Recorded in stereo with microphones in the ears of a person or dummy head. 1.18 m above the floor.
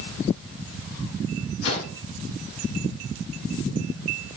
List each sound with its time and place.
1.6 s a whoosh: 80° left, 9 m